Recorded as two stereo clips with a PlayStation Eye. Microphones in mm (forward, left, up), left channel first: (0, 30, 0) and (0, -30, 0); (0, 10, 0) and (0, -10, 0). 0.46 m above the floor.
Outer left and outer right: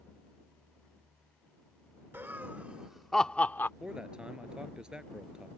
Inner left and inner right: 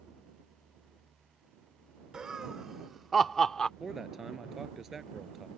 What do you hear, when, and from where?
2.1 s laughter: 40° right (ahead or behind); by 3.7 s 35° left (ahead or behind)
3.8 s a man speaking: 15° right (ahead or behind)